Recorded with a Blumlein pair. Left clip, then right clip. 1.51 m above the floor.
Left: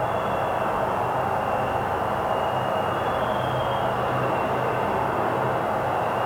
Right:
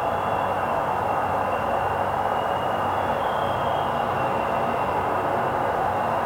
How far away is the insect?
About 1.1 m.